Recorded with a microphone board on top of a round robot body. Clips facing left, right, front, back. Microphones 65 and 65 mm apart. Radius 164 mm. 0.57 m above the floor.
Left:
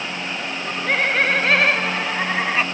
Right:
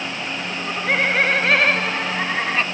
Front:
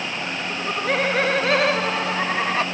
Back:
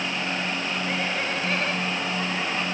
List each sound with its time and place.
0.5 s laughter: 10° right; by 2.6 s 5° left